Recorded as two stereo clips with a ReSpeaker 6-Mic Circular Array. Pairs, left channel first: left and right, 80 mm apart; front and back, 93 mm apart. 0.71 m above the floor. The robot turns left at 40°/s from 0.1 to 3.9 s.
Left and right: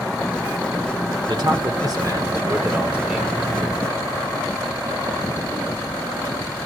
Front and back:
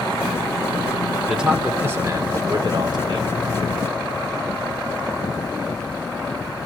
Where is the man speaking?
95° right, 2.5 m; by 3.3 s 175° right, 2.5 m.